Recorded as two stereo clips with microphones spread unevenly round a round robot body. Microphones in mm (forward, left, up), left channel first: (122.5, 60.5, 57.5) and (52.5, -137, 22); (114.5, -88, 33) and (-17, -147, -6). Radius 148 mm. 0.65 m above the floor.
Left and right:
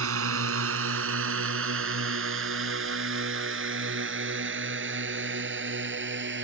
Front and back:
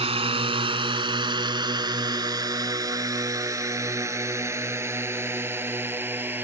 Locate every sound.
0.0 s a drone: 105° right; by 6.4 s 80° right